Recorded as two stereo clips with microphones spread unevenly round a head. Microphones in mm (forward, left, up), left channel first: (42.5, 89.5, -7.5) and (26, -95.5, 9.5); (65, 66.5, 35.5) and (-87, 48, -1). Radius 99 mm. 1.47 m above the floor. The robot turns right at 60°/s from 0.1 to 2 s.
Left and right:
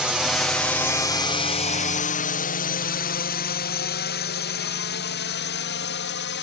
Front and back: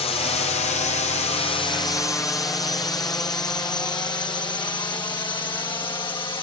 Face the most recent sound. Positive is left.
turn(degrees=70)